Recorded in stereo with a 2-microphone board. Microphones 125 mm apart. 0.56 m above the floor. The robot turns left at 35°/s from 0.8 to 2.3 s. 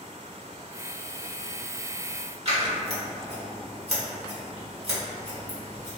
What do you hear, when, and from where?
2.5 s scissors: 55° right (ahead or behind), 1.2 m